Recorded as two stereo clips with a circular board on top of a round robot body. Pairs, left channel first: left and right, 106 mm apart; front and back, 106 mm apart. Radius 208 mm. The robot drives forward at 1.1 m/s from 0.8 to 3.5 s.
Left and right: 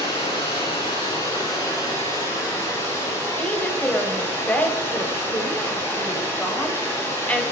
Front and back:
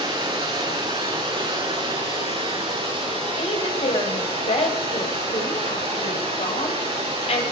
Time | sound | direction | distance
0.0 | running water | 135° left | 5.5 m
3.4 | a woman speaking | 15° left | 3 m